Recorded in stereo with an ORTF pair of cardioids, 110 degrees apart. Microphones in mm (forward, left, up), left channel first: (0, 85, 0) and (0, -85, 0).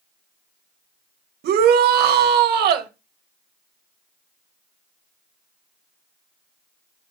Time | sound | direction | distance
1.4 | a shout | 70° right | 1.7 m